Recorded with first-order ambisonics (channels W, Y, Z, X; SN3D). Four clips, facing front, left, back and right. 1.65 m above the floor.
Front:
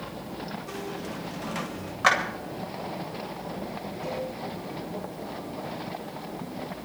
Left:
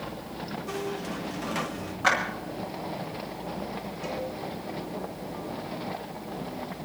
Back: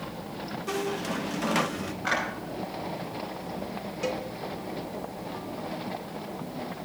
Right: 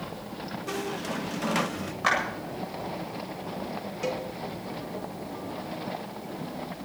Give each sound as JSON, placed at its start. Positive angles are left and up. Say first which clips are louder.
{"t": 0.7, "sound": "a squeak", "louder": "right 2 dB, back 5 dB", "azimuth_deg": -145, "distance_m": 0.7}
{"t": 2.0, "sound": "a clap", "louder": "left 1 dB, front 7 dB", "azimuth_deg": -5, "distance_m": 8.5}
{"t": 4.0, "sound": "a cowbell", "louder": "right 3 dB, back 2 dB", "azimuth_deg": -140, "distance_m": 3.0}